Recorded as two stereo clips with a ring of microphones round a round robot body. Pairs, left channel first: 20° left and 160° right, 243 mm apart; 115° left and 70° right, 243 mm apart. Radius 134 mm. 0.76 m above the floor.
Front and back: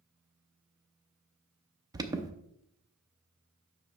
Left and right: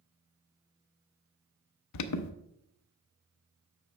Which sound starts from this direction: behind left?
An alarm, at 1.9 s.